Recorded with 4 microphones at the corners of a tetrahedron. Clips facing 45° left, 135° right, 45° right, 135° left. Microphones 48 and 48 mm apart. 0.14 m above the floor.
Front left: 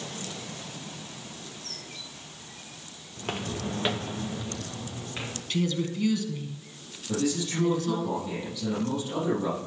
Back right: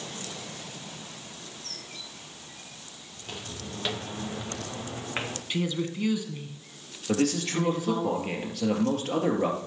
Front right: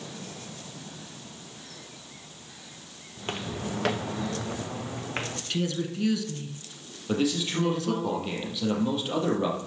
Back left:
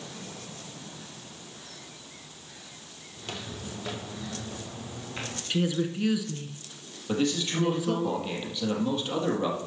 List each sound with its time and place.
3.2 s footsteps: 15° left, 1.7 m; by 5.4 s 90° right, 2.5 m
5.5 s a woman speaking: straight behind, 1.0 m
7.1 s a man speaking: 130° right, 3.5 m